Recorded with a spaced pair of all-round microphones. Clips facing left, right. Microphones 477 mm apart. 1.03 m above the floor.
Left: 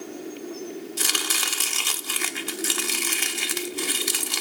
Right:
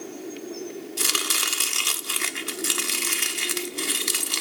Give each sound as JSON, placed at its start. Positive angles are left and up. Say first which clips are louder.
{"t": 1.0, "sound": "chopping", "louder": "even", "side_deg": 5, "distance_m": 1.0}